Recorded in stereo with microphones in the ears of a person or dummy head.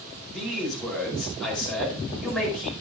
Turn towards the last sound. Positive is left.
turn(degrees=0)  # may be behind; listen again after turning